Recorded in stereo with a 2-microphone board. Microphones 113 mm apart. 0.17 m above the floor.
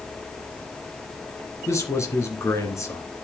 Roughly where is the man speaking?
Left.